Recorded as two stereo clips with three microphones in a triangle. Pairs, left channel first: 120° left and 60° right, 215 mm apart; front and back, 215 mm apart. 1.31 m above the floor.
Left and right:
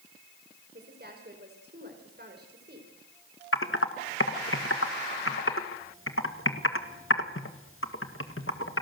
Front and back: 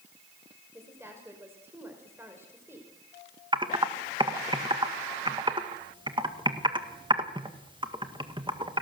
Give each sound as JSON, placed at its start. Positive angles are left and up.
{"t": 0.7, "sound": "a woman speaking", "azimuth_deg": -100, "distance_m": 4.5}
{"t": 3.5, "sound": "typing on a keyboard", "azimuth_deg": 110, "distance_m": 1.8}